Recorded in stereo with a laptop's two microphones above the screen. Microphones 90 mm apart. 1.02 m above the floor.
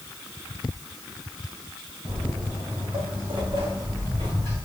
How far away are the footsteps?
About 2.5 m.